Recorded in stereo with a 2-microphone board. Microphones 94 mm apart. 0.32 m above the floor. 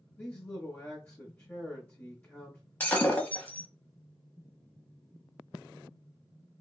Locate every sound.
0.2 s a man speaking: 20° left (ahead or behind), 1.0 m
2.8 s breaking glass: 20° left (ahead or behind), 0.8 m